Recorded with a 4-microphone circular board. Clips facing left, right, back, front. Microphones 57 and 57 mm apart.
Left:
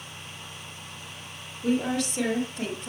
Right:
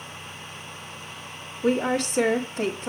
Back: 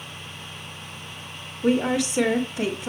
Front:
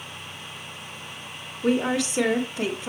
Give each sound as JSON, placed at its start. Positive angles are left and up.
{"t": 1.6, "sound": "a woman speaking", "azimuth_deg": -105, "distance_m": 1.3}